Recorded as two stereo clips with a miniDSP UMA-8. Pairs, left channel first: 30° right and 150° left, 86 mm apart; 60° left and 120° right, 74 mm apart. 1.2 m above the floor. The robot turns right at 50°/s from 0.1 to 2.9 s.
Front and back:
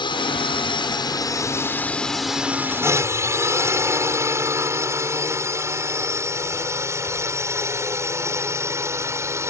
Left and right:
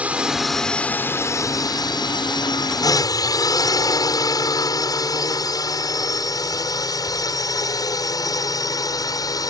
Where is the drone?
45° right; by 9.5 s 95° left.